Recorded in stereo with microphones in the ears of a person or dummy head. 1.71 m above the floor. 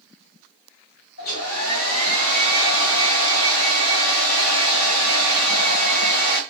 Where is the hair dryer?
85° left, 1.0 m.